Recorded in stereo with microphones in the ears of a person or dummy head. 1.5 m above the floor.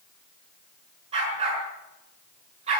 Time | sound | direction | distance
1.1 | a dog barking | 30° right (ahead or behind) | 6 m